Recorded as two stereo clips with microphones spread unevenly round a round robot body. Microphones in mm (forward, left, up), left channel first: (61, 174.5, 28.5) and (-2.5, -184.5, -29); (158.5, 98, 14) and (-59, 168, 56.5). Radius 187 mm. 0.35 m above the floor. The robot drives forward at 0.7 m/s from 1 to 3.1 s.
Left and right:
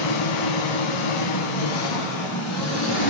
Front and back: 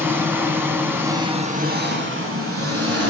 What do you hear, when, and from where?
0.0 s an engine running: 80° left, 1.0 m; by 3.1 s 145° left, 1.6 m